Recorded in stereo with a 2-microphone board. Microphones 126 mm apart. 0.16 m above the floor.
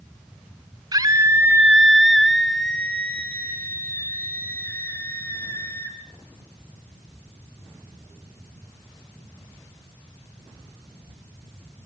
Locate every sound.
0.9 s a scream: 30° right (ahead or behind), 1.2 m; by 6.0 s 20° left (ahead or behind), 6 m